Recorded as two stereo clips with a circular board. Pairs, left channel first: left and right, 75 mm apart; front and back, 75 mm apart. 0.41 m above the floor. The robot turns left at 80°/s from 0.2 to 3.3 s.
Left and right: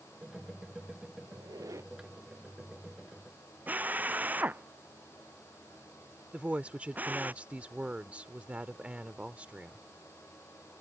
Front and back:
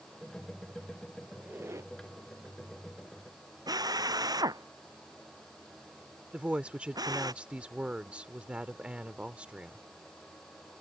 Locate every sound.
1.3 s a squeak: 95° right; by 1.9 s 145° right
3.7 s a drill: 155° right
6.3 s a woman speaking: 135° right